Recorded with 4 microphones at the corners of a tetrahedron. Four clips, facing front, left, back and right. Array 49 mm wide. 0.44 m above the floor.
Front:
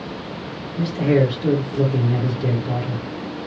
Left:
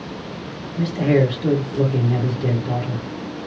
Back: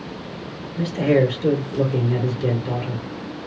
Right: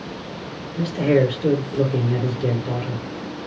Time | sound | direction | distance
0.8 | a man speaking | 110° right | 1.6 m